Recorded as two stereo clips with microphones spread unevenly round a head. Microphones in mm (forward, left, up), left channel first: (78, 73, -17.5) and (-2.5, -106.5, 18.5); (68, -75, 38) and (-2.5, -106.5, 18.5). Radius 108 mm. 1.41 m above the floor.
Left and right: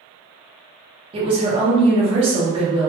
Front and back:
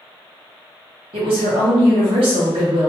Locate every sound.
1.1 s a woman speaking: 175° right, 1.0 m